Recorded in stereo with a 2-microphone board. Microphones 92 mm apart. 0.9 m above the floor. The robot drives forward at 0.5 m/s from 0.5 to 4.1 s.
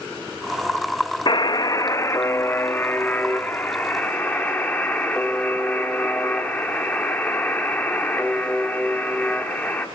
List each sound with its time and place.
1.3 s a buzzer: 50° left (ahead or behind), 0.6 m; by 9.8 s 15° left (ahead or behind), 1.8 m